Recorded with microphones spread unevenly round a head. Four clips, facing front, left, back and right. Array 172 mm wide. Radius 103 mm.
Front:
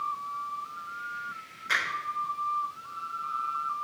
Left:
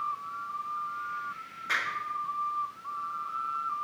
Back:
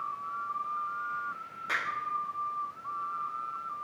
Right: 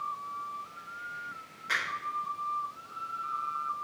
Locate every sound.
1.7 s a finger snap: straight behind, 3.5 m